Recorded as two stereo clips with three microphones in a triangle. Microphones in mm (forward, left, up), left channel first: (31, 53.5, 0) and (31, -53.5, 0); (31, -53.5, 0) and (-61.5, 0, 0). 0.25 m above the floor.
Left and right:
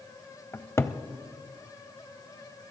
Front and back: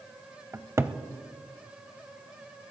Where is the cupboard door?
120° left, 0.6 m.